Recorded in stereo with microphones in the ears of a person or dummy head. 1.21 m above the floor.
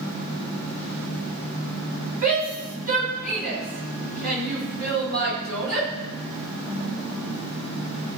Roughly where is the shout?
Right.